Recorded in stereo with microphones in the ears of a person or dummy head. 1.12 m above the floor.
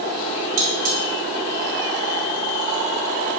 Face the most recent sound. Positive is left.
turn(degrees=-40)  # may be behind; listen again after turning